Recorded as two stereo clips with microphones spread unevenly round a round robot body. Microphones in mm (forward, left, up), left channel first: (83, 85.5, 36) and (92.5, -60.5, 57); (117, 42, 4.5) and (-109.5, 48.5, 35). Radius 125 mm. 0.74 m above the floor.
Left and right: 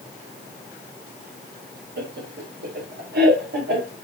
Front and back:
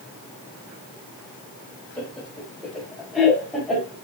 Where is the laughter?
85° right, 3 m; by 4.0 s 90° right, 4 m.